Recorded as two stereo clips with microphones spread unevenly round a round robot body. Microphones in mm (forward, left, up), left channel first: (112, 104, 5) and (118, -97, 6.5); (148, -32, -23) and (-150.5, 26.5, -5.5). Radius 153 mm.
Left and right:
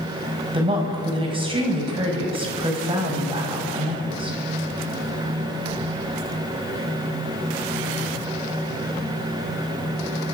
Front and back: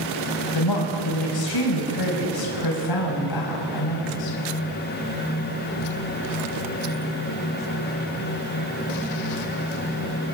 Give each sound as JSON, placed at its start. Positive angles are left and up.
{"t": 0.5, "sound": "a woman speaking", "azimuth_deg": -25, "distance_m": 5.5}